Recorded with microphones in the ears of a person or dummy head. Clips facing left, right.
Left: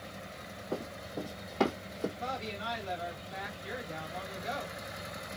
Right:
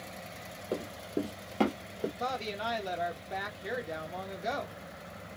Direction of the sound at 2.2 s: 85° right.